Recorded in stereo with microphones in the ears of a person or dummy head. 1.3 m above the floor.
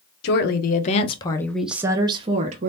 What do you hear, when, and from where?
0.2 s a woman speaking: 55° left (ahead or behind), 1.0 m; by 2.7 s 45° right (ahead or behind), 1.0 m